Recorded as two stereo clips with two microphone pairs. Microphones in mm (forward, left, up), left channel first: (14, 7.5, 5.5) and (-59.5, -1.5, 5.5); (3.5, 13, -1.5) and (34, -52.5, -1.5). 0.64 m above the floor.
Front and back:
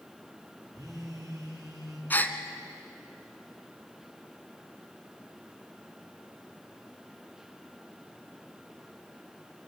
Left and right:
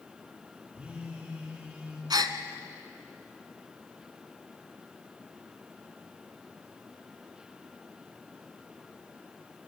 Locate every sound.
0.7 s a phone buzzing: 135° right, 7.5 m
2.1 s a gasp: 55° right, 1.2 m